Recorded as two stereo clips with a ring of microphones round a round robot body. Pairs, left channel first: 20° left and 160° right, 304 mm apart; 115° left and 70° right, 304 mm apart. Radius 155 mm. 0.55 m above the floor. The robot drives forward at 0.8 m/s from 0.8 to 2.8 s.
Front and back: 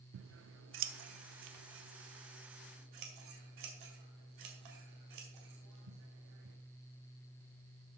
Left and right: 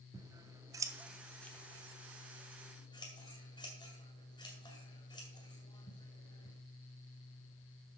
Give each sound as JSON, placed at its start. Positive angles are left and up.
{"t": 0.1, "sound": "scissors", "azimuth_deg": -140, "distance_m": 0.7}